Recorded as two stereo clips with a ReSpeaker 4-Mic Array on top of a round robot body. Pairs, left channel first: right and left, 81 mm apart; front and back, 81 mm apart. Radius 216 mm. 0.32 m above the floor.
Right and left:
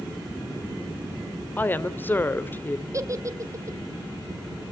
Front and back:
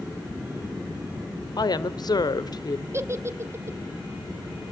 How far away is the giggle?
About 1.6 m.